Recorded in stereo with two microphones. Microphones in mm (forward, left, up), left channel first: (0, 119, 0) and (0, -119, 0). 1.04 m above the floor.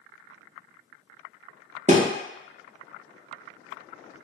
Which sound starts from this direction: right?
A thud, at 1.9 s.